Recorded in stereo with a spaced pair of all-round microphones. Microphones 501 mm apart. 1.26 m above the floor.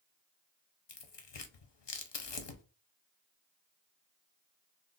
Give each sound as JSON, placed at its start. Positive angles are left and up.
{"t": 0.9, "sound": "tearing paper", "side_deg": 60, "distance_m": 0.5}